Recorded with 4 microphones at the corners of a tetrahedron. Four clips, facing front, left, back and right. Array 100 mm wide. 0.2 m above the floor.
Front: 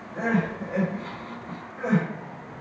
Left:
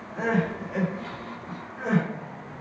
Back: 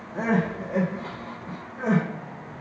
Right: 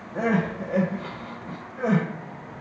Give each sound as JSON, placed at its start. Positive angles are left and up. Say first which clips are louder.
{"t": 0.1, "sound": "crying", "louder": "right 2 dB, back 1 dB", "azimuth_deg": -110, "distance_m": 1.5}